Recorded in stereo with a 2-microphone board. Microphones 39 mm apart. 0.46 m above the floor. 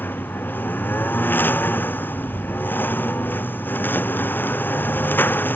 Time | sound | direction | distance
0.0 | a lawn mower | 60° left (ahead or behind) | ?